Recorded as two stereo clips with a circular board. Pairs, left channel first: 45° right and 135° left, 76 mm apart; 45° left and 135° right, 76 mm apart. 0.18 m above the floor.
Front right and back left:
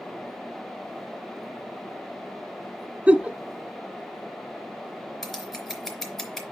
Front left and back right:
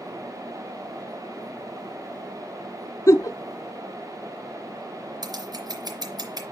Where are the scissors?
130° right, 3 m.